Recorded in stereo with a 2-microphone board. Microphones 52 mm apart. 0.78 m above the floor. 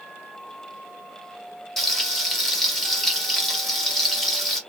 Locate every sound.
1.8 s frying: 5° left (ahead or behind), 1.4 m